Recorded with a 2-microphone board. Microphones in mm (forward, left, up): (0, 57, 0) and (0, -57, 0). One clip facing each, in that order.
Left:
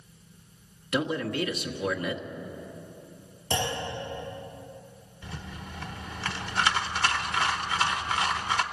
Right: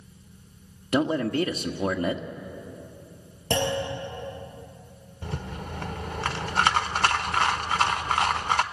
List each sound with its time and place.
0.9 s a man speaking: 35° right (ahead or behind), 1.2 m
3.5 s a clunk: 70° right (ahead or behind), 10 m
5.2 s a rattle: 50° right (ahead or behind), 1.0 m